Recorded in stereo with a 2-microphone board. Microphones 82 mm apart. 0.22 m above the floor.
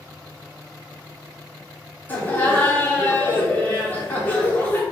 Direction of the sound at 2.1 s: 20° left (ahead or behind).